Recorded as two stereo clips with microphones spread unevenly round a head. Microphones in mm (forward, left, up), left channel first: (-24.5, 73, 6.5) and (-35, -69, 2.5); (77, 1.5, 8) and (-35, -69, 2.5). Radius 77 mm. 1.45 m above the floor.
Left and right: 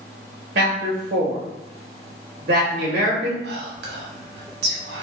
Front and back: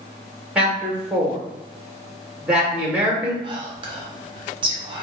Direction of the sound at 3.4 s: 95° right.